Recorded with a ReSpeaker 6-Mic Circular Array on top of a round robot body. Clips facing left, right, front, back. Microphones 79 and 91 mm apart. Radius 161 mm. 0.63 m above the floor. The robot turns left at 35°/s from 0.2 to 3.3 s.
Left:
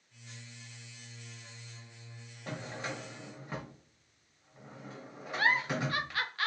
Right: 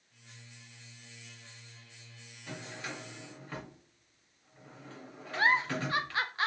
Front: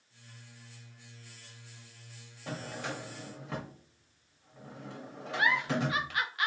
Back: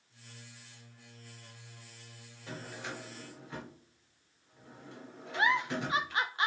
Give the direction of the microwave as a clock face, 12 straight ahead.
I don't hear a microwave.